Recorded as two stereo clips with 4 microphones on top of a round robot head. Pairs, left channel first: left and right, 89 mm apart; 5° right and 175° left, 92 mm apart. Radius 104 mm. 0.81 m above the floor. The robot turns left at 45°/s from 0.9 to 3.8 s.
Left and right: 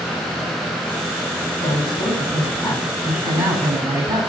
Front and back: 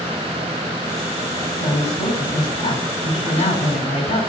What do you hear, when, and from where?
1.6 s a woman speaking: 60° left, 6.5 m; by 4.2 s 40° right, 6.5 m